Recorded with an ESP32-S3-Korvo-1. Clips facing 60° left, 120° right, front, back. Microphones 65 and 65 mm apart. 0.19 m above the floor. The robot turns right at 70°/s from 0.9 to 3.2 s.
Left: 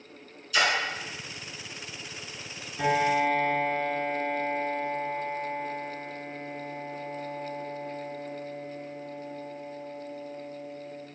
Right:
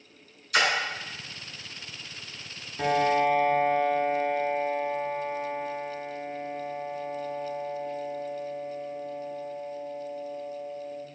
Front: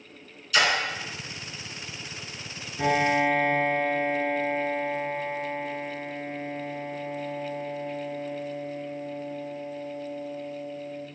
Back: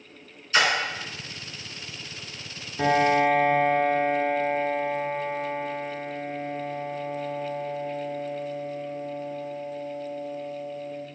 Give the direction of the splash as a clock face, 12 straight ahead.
4 o'clock.